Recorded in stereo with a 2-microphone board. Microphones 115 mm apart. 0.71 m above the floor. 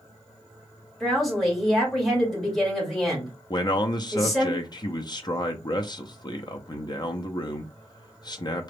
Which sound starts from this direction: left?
A man speaking, at 3.5 s.